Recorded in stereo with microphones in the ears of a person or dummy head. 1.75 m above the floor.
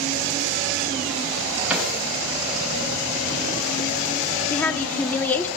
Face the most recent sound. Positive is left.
turn(degrees=10)  # may be behind; listen again after turning